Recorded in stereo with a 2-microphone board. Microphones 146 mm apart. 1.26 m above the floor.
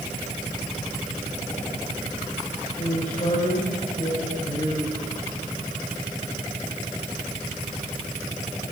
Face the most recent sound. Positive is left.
turn(degrees=50)  # may be behind; listen again after turning